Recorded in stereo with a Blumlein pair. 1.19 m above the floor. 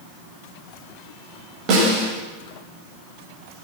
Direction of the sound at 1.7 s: 35° right.